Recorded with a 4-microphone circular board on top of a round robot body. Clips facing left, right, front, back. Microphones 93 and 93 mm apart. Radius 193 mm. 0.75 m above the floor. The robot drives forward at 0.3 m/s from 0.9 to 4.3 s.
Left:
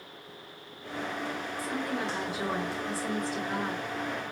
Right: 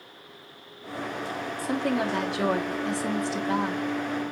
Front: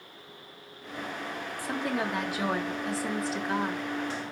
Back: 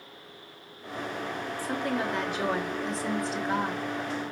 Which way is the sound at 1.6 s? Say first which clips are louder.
Right 7 dB, even; 75° right.